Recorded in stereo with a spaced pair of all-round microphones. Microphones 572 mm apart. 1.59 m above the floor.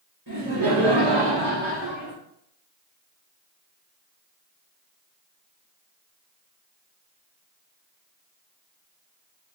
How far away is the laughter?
About 1.5 m.